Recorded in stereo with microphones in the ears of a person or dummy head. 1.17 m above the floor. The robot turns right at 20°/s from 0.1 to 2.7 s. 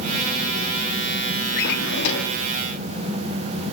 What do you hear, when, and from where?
1.6 s a drawer: 70° left (ahead or behind), 1.2 m; by 2.4 s 75° left (ahead or behind), 1.2 m